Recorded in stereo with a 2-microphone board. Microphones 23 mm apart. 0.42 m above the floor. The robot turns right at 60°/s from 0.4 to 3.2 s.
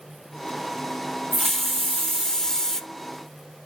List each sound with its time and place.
1.3 s a hiss: 35° left, 0.7 m; by 2.8 s 125° left, 0.7 m